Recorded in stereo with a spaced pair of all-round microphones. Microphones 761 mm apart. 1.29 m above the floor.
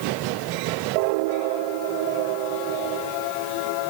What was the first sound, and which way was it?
Only background noise.